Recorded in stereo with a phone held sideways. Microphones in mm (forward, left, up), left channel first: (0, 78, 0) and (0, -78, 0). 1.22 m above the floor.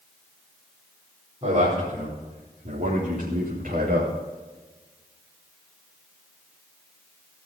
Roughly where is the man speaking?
Right.